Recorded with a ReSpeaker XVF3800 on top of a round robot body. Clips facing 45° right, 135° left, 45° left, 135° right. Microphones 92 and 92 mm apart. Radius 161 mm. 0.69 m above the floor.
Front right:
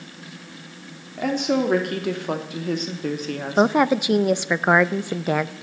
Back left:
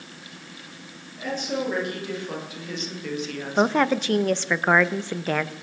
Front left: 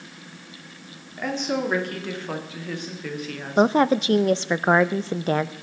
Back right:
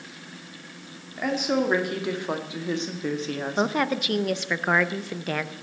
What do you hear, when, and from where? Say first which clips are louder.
1.2 s a woman speaking: front right 7 dB, back right 1 dB; 50° right, 2.5 m; by 3.8 s 90° right, 1.7 m
3.6 s a woman speaking: front right 3 dB, front left 8 dB; 20° left, 0.5 m